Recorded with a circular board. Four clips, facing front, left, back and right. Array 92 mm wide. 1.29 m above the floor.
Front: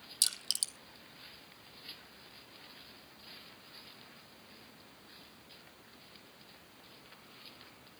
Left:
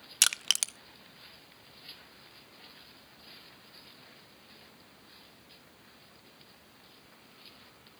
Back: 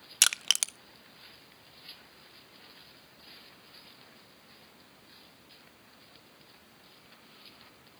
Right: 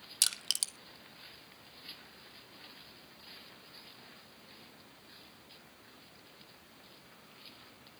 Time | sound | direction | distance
0.2 | crushing | 150° left | 0.6 m